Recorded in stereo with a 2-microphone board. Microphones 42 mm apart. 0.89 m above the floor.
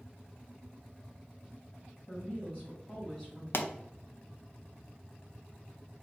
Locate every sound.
2.1 s a woman speaking: 25° left (ahead or behind), 2.0 m
3.5 s a pop: 60° left (ahead or behind), 0.5 m